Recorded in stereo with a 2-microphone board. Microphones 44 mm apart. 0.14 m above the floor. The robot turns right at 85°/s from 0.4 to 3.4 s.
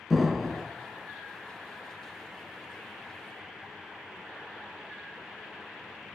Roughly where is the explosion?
Centre.